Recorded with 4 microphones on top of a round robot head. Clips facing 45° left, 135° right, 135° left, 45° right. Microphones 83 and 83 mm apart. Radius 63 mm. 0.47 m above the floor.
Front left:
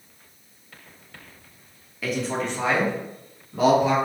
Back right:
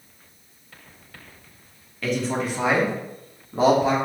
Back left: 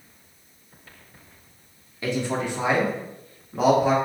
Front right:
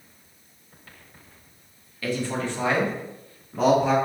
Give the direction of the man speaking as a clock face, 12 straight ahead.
8 o'clock.